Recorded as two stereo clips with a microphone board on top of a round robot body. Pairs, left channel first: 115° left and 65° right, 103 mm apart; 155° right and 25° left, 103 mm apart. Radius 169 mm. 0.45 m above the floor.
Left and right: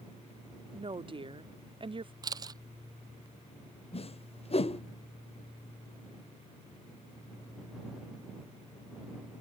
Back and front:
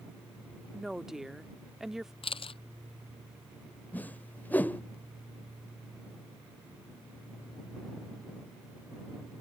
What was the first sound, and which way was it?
A woman speaking, 60° right.